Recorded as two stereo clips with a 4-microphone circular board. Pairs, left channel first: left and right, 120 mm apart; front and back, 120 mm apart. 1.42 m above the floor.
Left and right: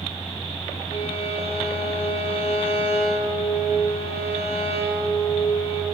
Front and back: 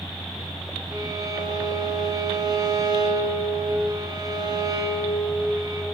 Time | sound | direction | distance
0.9 | a violin | 125° left | 1.1 m